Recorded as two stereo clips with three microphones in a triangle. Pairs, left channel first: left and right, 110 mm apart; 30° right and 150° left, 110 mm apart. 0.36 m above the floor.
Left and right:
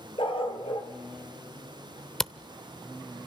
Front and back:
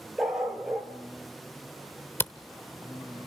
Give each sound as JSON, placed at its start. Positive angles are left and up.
{"t": 0.2, "sound": "a dog barking", "azimuth_deg": 65, "distance_m": 3.5}
{"t": 2.2, "sound": "a camera shutter", "azimuth_deg": 10, "distance_m": 0.8}